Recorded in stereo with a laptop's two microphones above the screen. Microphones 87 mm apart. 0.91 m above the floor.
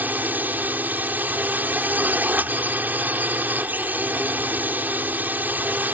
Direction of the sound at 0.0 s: 20° right (ahead or behind).